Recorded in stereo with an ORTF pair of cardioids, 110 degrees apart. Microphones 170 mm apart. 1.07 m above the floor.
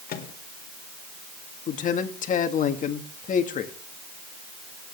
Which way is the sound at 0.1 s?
60° left.